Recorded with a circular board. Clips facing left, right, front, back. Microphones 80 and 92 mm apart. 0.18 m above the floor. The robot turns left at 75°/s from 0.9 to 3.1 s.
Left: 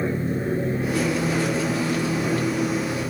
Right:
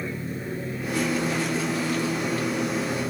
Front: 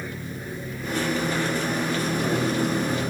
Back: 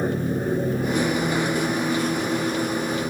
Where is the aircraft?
140° left; by 3.1 s 25° right.